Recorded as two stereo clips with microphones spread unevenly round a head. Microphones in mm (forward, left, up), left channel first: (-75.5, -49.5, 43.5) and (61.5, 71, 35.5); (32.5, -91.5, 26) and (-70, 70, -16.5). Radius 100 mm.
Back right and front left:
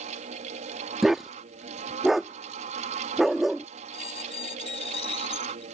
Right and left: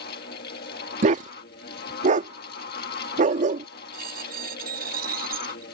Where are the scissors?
I don't hear scissors.